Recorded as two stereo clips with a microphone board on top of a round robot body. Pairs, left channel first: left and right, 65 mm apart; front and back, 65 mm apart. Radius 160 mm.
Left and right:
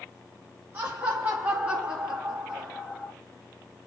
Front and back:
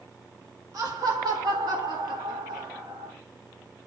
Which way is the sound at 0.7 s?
140° right.